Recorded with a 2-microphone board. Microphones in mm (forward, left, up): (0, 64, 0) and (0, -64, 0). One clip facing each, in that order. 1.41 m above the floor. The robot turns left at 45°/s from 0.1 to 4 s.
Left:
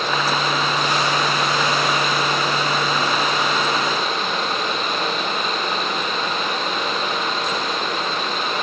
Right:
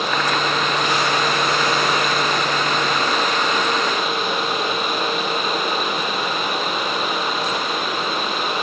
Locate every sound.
Only background noise.